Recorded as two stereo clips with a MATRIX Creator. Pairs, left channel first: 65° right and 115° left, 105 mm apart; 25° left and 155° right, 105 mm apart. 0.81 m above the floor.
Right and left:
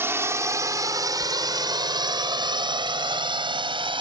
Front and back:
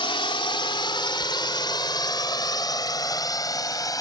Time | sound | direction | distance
0.0 | a drone | 50° left | ?
1.2 | a sliding door | 135° right | ?